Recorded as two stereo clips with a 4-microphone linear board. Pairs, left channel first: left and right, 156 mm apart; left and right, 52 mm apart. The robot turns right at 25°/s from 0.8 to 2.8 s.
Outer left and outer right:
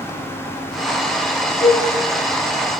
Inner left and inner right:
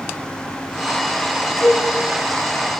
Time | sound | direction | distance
1.6 | a cowbell | 45° left (ahead or behind) | 4 m